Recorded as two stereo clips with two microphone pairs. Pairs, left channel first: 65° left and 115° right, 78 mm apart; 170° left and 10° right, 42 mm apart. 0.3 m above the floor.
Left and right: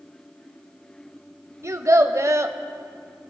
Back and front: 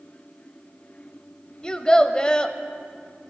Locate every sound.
1.6 s a child speaking: 130° right, 0.7 m